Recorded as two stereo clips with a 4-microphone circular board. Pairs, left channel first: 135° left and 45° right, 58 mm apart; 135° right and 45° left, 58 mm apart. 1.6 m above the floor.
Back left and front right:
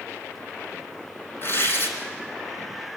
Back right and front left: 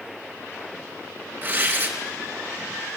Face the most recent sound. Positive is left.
turn(degrees=90)